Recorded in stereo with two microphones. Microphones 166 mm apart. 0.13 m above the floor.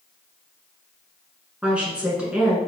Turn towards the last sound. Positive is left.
turn(degrees=-5)  # may be behind; listen again after turning